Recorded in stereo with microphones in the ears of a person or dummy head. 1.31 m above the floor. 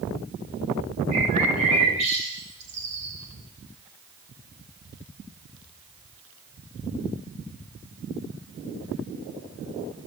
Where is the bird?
40° right (ahead or behind), 8 m.